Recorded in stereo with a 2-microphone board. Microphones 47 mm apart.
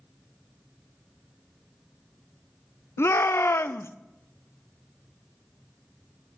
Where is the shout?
65° left (ahead or behind), 0.6 m.